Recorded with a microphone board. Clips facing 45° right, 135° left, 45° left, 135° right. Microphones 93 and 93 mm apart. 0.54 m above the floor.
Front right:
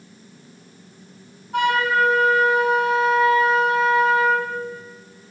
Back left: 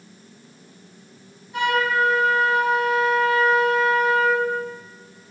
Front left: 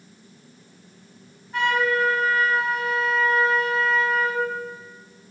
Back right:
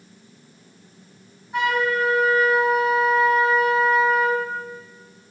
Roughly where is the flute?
Ahead right.